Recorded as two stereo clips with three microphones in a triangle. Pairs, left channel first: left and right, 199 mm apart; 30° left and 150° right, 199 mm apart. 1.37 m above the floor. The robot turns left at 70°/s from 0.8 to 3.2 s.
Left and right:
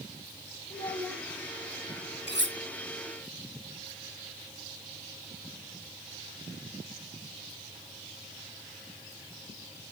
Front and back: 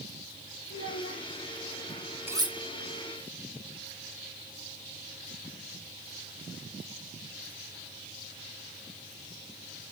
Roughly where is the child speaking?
Ahead left.